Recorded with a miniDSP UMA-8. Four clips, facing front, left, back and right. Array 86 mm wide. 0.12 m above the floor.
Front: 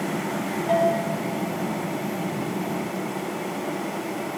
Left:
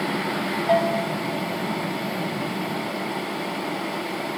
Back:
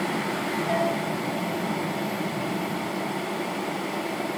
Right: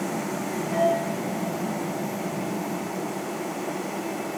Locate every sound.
0.7 s a bell: 75° left, 3 m